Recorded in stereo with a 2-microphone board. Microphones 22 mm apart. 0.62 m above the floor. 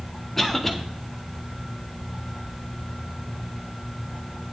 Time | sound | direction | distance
0.4 | a cough | 15° left (ahead or behind) | 1.5 m